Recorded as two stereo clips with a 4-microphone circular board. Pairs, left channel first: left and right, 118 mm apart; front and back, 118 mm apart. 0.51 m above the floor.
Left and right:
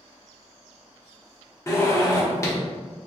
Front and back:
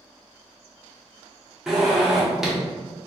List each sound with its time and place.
1.7 s a zipper: 100° left, 0.9 m